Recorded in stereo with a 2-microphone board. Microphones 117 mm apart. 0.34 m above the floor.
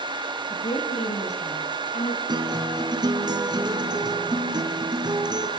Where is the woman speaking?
80° left, 8.5 m; by 2.2 s 75° left (ahead or behind), 7 m.